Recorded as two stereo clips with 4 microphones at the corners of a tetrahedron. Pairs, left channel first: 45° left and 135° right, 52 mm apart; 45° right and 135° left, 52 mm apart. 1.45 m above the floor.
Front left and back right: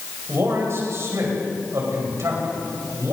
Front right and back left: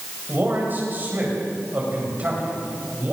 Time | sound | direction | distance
0.3 | a man speaking | 175° right | 9.5 m